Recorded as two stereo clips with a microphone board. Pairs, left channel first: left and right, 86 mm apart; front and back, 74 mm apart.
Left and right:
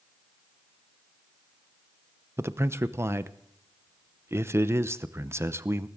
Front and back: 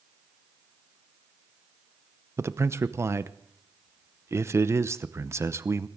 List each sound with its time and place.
2.4 s a man speaking: 140° right, 0.7 m